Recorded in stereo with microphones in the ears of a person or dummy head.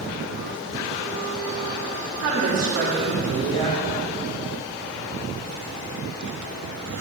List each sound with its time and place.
2.2 s a woman speaking: 75° right (ahead or behind), 3 m